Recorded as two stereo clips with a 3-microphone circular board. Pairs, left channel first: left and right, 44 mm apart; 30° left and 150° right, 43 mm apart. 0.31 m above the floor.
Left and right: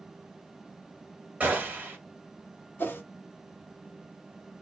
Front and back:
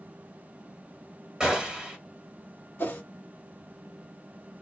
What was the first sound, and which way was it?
A gunshot, 95° right.